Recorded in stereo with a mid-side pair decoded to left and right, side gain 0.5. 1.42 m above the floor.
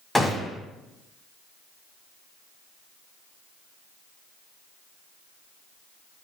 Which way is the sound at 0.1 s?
10° left.